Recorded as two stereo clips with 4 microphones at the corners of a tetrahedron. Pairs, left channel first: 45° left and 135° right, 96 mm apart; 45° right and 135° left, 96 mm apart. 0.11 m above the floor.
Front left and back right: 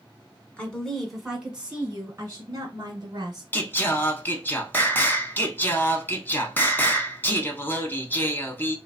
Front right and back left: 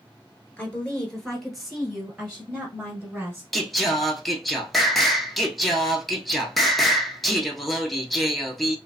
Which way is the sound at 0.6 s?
5° right.